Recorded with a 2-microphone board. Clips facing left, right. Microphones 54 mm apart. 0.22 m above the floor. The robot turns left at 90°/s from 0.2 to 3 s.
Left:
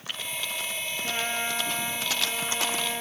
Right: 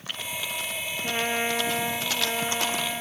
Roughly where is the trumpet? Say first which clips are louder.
Right 4 dB; ahead.